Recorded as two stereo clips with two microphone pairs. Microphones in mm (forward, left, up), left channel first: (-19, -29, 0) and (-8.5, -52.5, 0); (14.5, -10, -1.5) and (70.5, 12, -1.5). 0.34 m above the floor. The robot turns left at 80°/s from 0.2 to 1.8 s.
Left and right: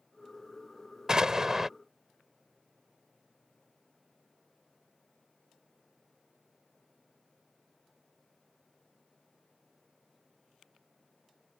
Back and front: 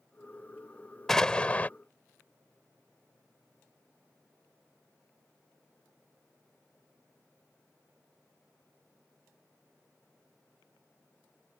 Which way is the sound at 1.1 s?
75° right.